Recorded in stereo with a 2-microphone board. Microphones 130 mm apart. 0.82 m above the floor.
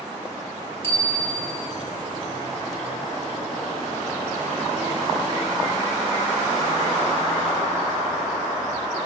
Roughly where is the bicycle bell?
Left.